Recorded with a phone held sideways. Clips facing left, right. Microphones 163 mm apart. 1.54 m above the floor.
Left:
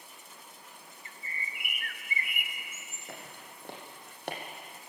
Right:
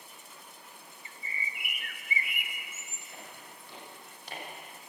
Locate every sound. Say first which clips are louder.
1.1 s a bird: right 2 dB; 50° left (ahead or behind), 1.0 m
3.1 s footsteps: left 3 dB; 65° left (ahead or behind), 5.5 m; by 4.4 s 60° left (ahead or behind), 3.5 m